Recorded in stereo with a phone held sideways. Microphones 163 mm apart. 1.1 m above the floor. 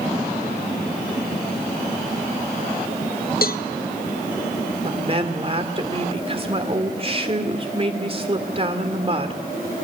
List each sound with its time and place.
3.4 s a cowbell: 65° left (ahead or behind), 0.8 m
4.8 s a woman speaking: 35° right (ahead or behind), 2.5 m